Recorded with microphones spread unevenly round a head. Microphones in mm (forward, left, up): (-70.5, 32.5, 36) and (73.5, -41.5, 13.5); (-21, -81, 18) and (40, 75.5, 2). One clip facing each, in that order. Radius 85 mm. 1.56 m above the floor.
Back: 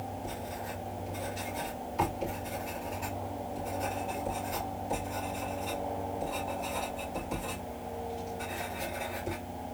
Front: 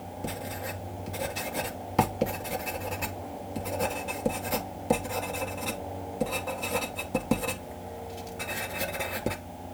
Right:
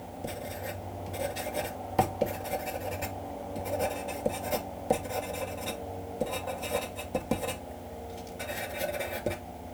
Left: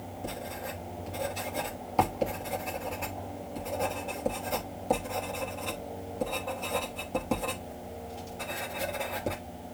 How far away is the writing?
About 2.5 m.